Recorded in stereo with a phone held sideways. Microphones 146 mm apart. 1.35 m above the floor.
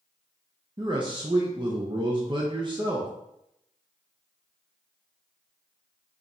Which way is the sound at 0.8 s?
35° right (ahead or behind).